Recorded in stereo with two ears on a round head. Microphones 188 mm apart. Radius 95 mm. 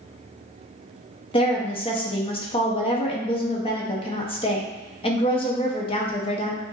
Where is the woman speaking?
30° left (ahead or behind), 0.8 m.